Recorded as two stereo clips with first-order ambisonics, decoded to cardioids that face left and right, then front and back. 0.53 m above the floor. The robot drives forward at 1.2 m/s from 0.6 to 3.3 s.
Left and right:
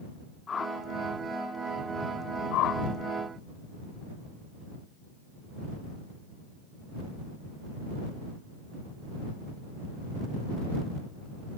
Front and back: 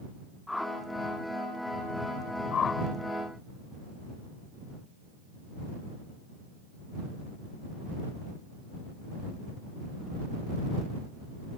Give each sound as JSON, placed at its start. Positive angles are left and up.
{"t": 0.5, "sound": "a whoosh", "azimuth_deg": 70}
{"t": 2.5, "sound": "a whoosh", "azimuth_deg": 55}